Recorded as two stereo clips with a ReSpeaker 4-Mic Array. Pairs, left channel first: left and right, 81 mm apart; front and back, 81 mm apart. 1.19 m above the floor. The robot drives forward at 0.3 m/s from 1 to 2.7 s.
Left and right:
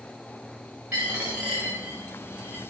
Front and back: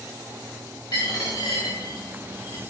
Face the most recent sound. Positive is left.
turn(degrees=-25)